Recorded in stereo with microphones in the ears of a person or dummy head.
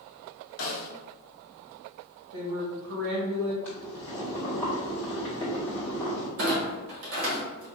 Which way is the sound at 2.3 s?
70° right (ahead or behind).